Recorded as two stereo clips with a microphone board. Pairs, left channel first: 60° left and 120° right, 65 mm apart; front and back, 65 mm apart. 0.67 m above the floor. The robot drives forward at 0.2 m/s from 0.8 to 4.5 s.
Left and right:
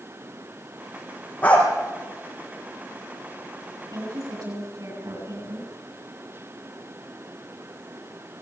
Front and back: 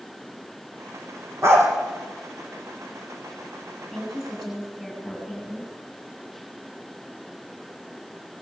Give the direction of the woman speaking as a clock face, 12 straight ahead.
3 o'clock.